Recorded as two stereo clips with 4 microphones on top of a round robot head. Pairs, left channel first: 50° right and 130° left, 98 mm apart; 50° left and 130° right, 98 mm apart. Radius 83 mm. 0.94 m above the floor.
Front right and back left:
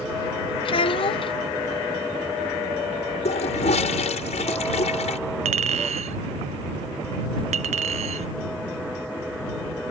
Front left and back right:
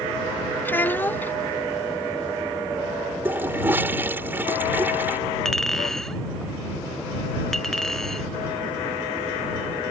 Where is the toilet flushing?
55° right.